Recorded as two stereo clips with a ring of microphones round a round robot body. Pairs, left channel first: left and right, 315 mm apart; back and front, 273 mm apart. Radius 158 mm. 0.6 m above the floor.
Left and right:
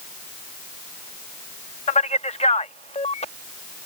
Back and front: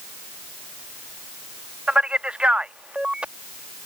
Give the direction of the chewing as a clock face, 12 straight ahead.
No chewing in this recording.